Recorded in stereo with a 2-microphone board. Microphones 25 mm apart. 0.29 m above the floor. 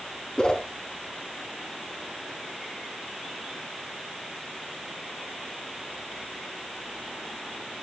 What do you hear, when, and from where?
0.4 s a whoosh: 40° left (ahead or behind), 2.5 m